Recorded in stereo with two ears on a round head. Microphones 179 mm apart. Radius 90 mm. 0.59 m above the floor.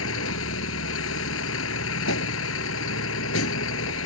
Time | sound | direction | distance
0.0 | a vehicle | 80° left | ?